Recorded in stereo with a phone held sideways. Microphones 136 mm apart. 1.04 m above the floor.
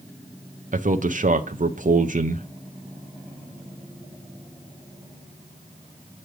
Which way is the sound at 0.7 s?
65° right (ahead or behind).